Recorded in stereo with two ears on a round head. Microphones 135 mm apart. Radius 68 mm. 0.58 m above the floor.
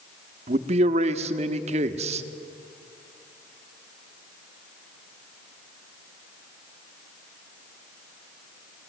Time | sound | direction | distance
0.5 | a man speaking | 45° right (ahead or behind) | 0.9 m